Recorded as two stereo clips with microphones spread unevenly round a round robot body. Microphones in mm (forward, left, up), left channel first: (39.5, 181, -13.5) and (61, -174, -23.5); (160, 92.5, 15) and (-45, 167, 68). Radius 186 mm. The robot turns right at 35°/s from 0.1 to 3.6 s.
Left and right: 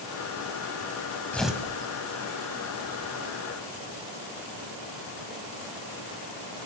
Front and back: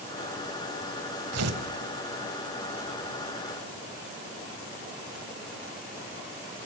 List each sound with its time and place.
1.3 s tearing paper: straight behind, 3 m; by 1.6 s 170° right, 3 m